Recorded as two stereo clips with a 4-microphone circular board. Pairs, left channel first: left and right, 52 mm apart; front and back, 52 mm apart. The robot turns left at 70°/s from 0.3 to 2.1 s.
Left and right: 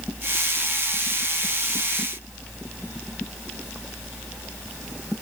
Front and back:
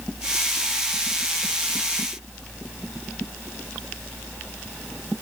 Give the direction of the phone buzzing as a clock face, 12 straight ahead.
No phone buzzing in this recording.